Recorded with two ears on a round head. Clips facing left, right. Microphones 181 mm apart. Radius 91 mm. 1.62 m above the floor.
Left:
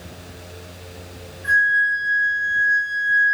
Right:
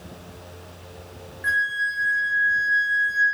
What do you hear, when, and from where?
1.4 s a flute: 75° right (ahead or behind), 0.8 m